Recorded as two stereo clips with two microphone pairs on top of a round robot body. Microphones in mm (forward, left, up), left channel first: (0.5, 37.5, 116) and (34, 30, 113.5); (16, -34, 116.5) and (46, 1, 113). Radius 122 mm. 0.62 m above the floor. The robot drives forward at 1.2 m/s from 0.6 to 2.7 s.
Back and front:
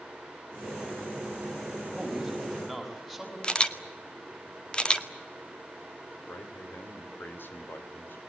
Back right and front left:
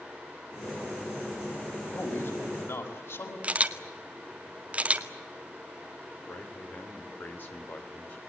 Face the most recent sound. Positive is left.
turn(degrees=-175)